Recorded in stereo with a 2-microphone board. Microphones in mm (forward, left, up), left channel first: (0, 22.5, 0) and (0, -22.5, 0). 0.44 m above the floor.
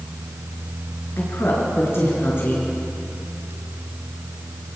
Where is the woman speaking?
60° left (ahead or behind), 5.5 m.